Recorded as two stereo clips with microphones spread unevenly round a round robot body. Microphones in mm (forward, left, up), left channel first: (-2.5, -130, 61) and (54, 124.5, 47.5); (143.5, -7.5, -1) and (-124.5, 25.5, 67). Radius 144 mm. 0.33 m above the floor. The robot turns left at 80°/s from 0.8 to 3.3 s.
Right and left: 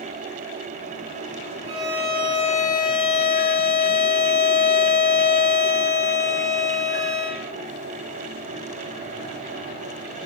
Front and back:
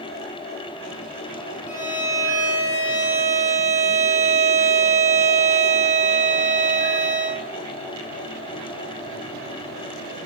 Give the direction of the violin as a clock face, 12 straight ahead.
11 o'clock.